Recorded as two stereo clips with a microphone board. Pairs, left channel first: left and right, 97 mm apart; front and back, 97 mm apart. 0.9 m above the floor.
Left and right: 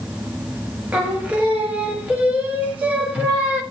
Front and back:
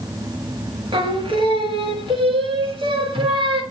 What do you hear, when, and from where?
0.9 s singing: 165° right, 1.8 m